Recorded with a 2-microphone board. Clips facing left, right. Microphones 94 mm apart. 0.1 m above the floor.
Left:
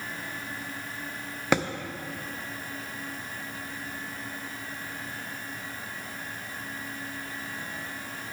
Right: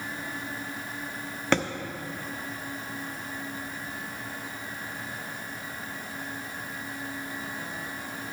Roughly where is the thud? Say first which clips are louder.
Even; centre.